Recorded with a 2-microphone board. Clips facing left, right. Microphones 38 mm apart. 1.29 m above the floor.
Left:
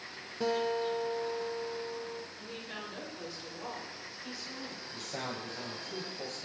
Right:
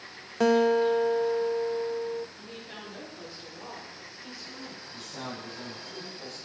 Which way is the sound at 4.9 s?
55° left (ahead or behind).